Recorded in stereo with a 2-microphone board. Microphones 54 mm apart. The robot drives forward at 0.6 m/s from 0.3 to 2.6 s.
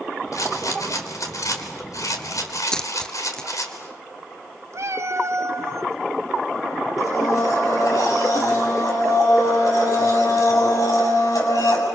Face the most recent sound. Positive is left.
turn(degrees=75)  # may be behind; listen again after turning